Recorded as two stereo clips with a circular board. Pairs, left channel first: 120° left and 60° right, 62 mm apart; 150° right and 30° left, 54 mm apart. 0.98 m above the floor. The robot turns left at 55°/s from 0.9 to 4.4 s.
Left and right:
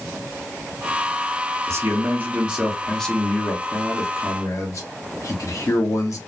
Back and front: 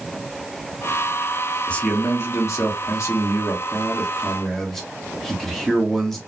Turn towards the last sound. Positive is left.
turn(degrees=125)